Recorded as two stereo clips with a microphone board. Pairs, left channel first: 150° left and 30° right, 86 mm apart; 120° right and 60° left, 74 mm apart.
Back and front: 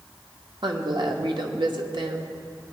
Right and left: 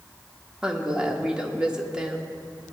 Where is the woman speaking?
20° right, 1.2 m.